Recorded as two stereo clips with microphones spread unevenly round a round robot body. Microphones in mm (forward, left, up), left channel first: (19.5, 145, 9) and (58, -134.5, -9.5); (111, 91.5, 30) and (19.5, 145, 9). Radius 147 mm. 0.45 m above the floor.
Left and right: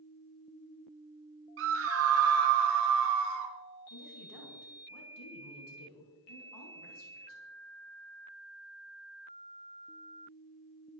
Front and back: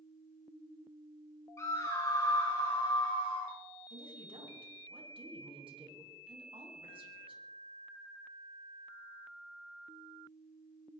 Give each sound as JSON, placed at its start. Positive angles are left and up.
{"t": 1.6, "sound": "a scream", "azimuth_deg": -105, "distance_m": 1.7}
{"t": 3.9, "sound": "a woman speaking", "azimuth_deg": 120, "distance_m": 5.0}